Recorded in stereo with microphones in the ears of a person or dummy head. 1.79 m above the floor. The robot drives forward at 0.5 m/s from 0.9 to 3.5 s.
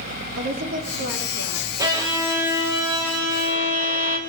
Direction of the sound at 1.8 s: 15° right (ahead or behind).